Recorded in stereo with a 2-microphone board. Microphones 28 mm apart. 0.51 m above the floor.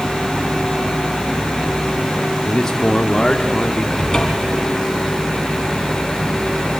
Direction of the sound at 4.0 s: 15° left (ahead or behind).